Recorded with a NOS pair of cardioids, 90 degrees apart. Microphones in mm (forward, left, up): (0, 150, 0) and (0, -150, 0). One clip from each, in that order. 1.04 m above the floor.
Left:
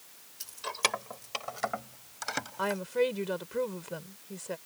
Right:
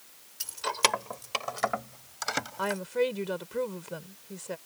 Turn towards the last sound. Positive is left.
turn(degrees=-5)